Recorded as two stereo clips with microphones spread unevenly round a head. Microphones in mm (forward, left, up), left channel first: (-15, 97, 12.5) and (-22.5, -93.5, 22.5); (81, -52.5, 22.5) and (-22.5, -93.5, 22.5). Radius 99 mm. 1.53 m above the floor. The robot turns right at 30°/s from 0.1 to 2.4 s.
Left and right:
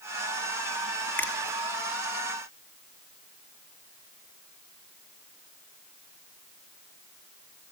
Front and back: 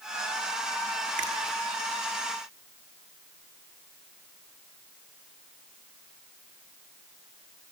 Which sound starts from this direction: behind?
A finger snap, at 1.2 s.